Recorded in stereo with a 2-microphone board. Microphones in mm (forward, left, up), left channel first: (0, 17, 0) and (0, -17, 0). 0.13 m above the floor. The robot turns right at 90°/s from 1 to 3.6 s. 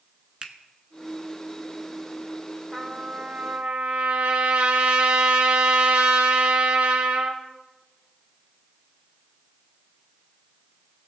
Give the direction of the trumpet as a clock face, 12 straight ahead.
6 o'clock.